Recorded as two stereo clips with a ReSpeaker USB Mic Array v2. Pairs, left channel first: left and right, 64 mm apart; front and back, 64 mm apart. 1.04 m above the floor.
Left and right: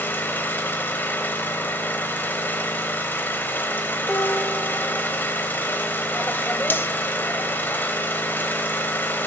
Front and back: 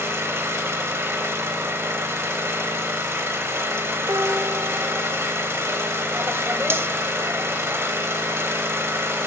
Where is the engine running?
140° left, 1.4 m.